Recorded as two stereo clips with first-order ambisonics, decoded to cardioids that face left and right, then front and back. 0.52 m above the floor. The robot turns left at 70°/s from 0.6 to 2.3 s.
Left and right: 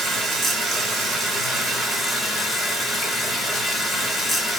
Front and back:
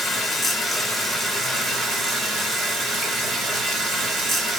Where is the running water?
85° right, 0.9 m; by 4.6 s 155° left, 0.9 m.